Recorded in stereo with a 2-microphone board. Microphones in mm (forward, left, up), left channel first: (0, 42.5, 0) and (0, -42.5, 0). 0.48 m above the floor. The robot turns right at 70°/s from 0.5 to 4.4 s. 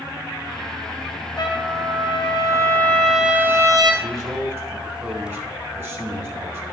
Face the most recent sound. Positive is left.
turn(degrees=-25)  # may be behind; listen again after turning